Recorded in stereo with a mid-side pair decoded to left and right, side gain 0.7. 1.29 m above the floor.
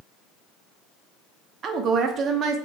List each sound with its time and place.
1.6 s a woman speaking: 40° right, 0.8 m